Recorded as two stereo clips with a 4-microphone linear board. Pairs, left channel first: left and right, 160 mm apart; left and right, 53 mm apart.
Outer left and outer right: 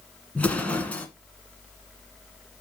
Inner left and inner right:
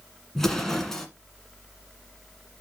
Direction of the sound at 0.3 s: 10° left (ahead or behind).